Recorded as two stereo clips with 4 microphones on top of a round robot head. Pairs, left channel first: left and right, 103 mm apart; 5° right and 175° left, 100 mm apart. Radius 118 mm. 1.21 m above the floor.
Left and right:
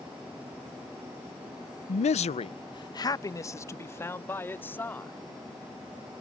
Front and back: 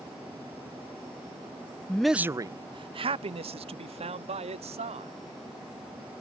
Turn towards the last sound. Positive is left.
turn(degrees=160)